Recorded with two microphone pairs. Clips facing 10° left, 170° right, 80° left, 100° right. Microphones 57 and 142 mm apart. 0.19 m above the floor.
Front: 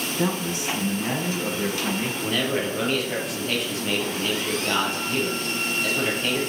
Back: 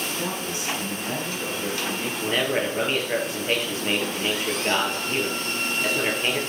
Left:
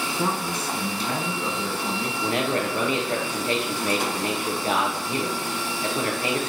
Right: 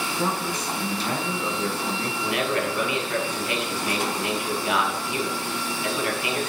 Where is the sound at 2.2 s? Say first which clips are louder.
Back 3 dB, left 1 dB; 135° left, 4 m.